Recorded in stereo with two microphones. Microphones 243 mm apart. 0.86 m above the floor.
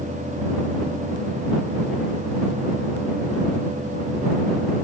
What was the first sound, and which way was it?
Only background noise.